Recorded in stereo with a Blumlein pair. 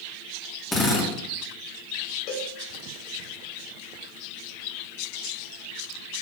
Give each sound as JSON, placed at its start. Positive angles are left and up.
{"t": 0.7, "sound": "a drill", "azimuth_deg": 10, "distance_m": 3.5}
{"t": 2.3, "sound": "a cowbell", "azimuth_deg": 40, "distance_m": 2.5}